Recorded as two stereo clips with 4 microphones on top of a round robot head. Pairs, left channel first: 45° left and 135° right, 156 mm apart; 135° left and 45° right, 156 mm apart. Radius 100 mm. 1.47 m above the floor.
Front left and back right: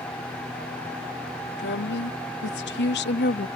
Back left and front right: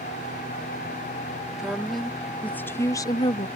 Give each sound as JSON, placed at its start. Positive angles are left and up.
{"t": 1.6, "sound": "a woman speaking", "azimuth_deg": 40}